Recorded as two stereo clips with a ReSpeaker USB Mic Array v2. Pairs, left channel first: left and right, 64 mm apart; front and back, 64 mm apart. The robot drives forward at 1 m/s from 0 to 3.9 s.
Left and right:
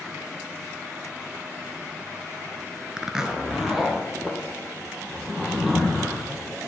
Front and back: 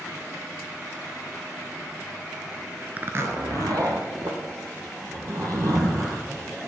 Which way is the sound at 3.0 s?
160° right.